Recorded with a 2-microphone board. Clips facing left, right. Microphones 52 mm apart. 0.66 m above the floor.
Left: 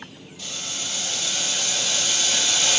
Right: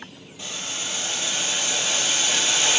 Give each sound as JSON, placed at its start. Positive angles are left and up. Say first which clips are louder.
{"t": 0.4, "sound": "boiling", "louder": "right 1 dB", "side_deg": -25, "distance_m": 0.8}